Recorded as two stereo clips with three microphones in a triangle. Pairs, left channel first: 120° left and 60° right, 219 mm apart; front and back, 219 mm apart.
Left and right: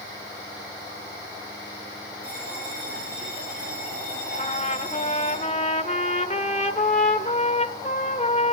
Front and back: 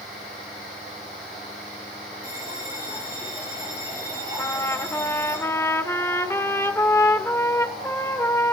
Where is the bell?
105° right, 8.5 m.